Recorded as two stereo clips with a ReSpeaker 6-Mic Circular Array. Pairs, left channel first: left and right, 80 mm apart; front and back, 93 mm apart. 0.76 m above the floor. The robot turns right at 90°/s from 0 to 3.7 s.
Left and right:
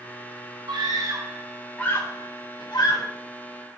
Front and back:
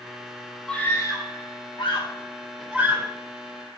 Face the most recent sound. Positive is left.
turn(degrees=-170)